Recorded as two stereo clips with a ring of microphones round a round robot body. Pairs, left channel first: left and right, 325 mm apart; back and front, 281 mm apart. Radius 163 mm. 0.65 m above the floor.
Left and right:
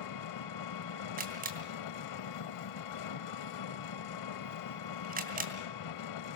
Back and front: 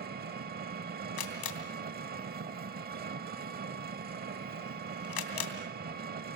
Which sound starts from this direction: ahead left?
An engine running, at 0.0 s.